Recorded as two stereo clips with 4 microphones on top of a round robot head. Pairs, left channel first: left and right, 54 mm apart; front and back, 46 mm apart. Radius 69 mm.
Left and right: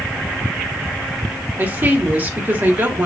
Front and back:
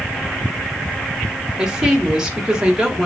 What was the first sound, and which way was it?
A woman speaking, 115° right.